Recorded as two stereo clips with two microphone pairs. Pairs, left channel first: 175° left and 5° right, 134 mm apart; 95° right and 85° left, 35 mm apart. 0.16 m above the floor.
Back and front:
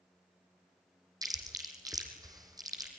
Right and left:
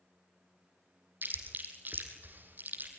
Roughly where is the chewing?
Ahead left.